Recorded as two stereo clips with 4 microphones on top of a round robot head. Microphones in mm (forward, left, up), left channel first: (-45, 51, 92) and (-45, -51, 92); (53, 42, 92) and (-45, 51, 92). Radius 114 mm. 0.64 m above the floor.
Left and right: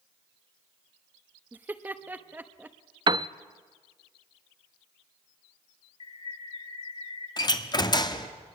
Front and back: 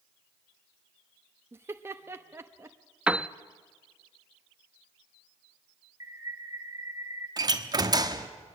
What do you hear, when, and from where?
1.5 s laughter: 145° right, 1.0 m
3.1 s a piano: 110° right, 0.5 m
6.0 s a bird: 115° left, 7 m
7.4 s a door slam: 130° left, 1.3 m